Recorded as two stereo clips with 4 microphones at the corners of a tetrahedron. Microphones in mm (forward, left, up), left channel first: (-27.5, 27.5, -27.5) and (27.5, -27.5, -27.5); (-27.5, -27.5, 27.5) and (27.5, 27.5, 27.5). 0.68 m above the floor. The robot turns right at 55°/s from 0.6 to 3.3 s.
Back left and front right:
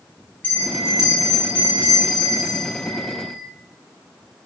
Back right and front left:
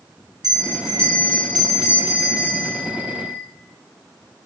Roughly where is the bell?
Left.